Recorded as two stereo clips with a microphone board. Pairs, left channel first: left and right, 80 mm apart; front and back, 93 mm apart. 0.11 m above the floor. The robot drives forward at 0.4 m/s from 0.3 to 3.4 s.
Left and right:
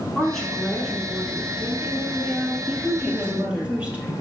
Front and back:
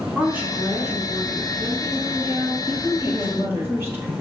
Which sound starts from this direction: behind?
A woman speaking, at 0.1 s.